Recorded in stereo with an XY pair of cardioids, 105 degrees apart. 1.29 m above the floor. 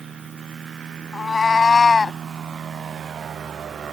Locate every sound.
1.1 s a cat meowing: 30° left; by 2.2 s 25° left